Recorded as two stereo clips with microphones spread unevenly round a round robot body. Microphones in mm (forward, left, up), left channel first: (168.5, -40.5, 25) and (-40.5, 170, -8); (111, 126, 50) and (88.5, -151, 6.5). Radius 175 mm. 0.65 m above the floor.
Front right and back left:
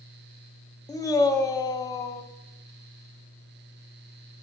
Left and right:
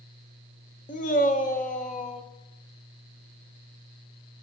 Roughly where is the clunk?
I don't hear a clunk.